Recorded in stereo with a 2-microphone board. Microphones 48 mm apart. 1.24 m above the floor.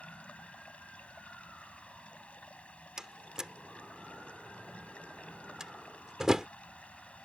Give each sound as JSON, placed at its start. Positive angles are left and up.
{"t": 0.0, "sound": "running water", "side_deg": 25}
{"t": 3.0, "sound": "a door slam", "side_deg": -15}